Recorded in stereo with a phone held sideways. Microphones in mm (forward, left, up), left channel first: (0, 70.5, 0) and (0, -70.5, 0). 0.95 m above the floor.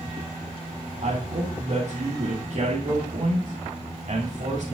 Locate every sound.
1.0 s a woman speaking: 60° right (ahead or behind), 2.5 m